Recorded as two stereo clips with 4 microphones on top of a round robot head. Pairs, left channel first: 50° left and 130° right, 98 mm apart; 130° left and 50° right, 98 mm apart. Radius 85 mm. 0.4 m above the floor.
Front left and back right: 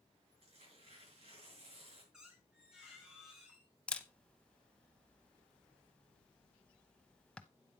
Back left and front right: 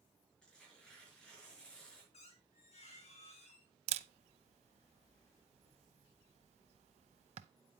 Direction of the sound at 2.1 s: 145° left.